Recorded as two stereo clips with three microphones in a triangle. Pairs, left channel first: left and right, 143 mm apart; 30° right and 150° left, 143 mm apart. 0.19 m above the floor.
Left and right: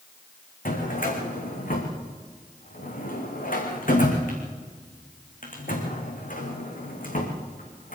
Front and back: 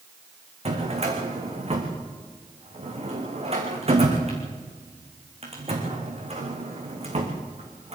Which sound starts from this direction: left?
A drawer, at 0.7 s.